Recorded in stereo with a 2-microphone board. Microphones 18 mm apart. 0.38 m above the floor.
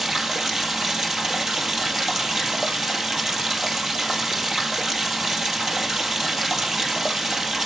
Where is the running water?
20° right (ahead or behind), 2.0 m.